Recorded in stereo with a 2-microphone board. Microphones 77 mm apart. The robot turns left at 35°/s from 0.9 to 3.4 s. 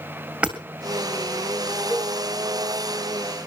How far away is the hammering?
About 2 m.